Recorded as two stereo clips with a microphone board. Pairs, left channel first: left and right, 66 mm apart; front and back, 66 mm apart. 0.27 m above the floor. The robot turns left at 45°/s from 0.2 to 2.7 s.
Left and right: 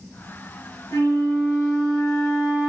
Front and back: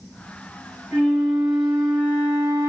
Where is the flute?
115° left, 2.5 m; by 2.7 s 30° left, 2.5 m.